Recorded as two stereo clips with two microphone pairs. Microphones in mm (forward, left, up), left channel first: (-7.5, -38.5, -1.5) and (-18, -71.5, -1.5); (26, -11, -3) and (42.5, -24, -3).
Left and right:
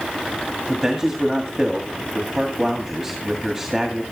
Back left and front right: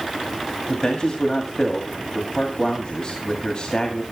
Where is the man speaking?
175° left, 2 m.